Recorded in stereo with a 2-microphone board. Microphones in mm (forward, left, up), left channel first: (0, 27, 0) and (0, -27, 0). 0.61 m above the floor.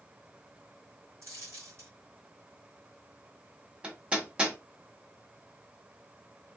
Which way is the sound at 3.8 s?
20° right (ahead or behind).